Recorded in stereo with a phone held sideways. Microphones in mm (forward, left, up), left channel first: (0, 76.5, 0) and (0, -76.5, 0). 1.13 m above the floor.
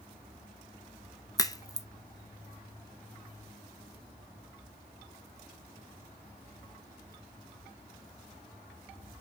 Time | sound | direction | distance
1.4 | a crack | 25° left (ahead or behind) | 0.8 m